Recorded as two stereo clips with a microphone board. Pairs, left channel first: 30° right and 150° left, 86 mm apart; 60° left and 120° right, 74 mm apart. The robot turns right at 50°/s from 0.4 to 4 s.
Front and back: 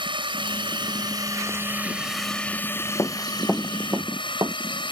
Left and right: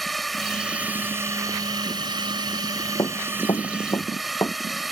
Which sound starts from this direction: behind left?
A drone, at 0.0 s.